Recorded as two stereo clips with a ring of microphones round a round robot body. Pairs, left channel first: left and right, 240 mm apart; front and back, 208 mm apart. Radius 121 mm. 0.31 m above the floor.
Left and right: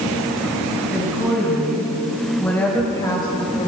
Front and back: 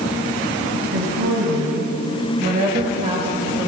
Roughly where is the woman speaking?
Behind.